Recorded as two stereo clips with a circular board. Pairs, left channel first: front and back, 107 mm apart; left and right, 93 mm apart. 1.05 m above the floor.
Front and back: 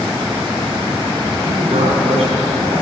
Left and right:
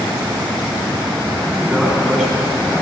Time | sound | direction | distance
1.4 | a man speaking | 175° right | 4 m